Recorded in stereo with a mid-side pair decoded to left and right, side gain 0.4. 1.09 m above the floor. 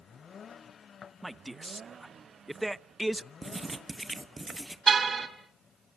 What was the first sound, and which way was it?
A man speaking, 10° right.